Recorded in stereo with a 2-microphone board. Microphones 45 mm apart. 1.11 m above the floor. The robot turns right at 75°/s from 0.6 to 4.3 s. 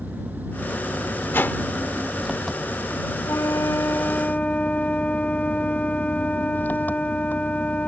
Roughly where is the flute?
Left.